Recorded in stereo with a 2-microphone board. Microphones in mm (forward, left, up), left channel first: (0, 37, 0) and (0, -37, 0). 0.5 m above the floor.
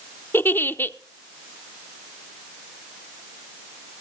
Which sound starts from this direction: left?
A giggle, at 0.3 s.